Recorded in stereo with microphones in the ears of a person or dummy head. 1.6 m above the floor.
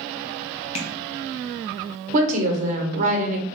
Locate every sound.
0.8 s tapping: 35° left (ahead or behind), 0.8 m
2.1 s a woman speaking: 45° right (ahead or behind), 1.0 m